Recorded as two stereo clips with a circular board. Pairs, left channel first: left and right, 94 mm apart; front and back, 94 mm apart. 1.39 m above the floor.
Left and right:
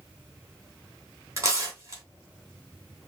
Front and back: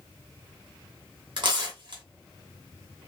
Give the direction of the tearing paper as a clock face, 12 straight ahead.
5 o'clock.